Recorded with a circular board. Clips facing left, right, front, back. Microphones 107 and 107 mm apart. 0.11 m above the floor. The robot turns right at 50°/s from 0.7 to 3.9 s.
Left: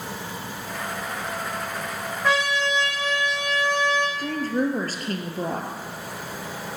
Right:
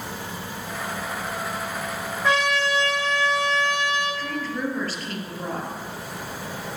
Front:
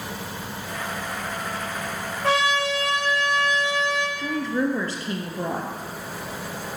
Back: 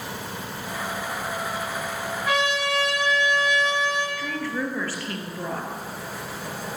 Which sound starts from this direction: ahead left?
A woman speaking, at 4.2 s.